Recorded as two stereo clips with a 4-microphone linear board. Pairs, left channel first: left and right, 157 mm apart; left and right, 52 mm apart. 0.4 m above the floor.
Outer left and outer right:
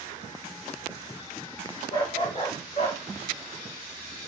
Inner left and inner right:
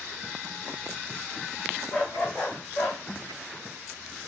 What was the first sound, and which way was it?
A dog barking, 30° left (ahead or behind).